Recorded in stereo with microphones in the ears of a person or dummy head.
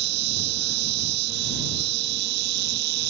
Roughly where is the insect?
Right.